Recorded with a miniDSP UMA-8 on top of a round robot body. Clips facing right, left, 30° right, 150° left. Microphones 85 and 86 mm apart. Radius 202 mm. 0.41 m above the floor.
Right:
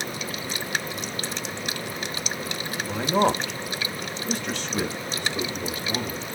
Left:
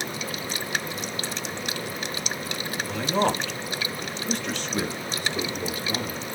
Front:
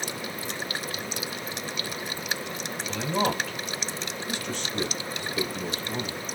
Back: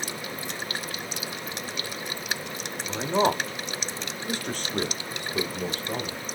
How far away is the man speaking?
About 1.4 m.